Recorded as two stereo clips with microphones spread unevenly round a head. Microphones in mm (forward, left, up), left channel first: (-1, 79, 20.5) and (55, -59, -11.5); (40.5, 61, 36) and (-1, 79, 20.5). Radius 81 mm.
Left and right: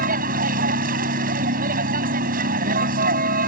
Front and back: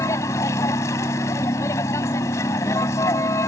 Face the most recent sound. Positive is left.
turn(degrees=-35)